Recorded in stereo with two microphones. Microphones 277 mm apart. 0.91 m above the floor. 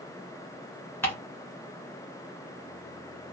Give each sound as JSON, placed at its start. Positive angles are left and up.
{"t": 1.0, "sound": "ticking", "side_deg": 10, "distance_m": 1.7}